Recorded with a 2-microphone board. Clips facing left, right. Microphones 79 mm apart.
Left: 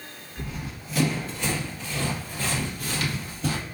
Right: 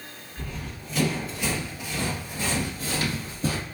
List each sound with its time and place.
0.4 s running footsteps: 15° left (ahead or behind), 1.7 m; by 3.6 s 40° right (ahead or behind), 2 m